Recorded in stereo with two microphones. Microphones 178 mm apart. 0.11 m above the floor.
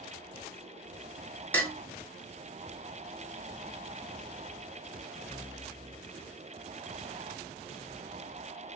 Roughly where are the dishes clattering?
Centre.